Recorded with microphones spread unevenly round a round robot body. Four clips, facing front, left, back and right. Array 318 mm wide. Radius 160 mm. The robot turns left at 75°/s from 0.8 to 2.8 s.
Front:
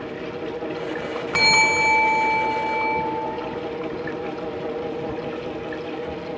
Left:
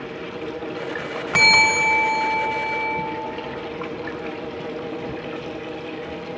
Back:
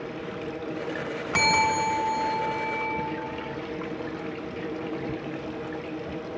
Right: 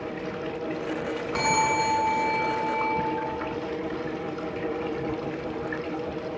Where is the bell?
90° left, 3 m; by 3.0 s 20° right, 3 m.